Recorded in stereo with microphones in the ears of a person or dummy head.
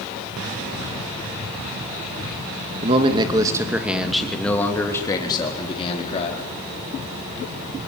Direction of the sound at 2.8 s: 35° right (ahead or behind).